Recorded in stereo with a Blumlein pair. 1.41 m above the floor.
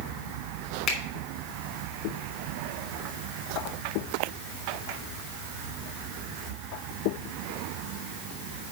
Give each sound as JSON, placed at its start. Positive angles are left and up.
{"t": 0.9, "sound": "a finger snap", "azimuth_deg": 35, "distance_m": 2.5}